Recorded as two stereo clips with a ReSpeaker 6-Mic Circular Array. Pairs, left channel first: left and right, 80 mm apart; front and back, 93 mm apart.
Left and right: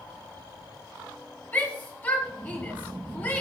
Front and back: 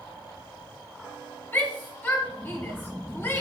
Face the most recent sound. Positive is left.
turn(degrees=40)